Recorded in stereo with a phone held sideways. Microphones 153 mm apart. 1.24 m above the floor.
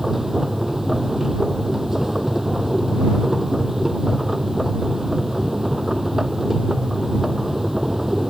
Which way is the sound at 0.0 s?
Centre (ahead or behind).